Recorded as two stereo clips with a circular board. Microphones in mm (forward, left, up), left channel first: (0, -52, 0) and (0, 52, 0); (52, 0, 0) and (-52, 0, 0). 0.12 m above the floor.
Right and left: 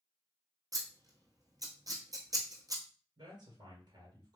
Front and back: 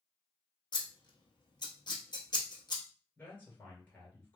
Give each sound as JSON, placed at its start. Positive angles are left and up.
{"t": 0.7, "sound": "scissors", "azimuth_deg": 40, "distance_m": 1.1}
{"t": 3.2, "sound": "a man speaking", "azimuth_deg": 70, "distance_m": 2.0}